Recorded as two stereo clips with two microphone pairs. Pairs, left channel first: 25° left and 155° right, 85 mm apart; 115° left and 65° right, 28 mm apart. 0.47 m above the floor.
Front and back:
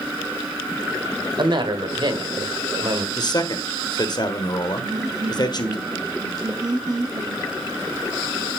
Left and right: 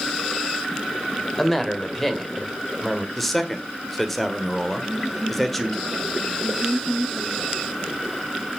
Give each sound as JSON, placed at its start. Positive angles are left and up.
{"t": 1.4, "sound": "a woman speaking", "azimuth_deg": -160, "distance_m": 1.9}
{"t": 3.2, "sound": "a man speaking", "azimuth_deg": 35, "distance_m": 1.7}
{"t": 4.8, "sound": "laughter", "azimuth_deg": -150, "distance_m": 1.1}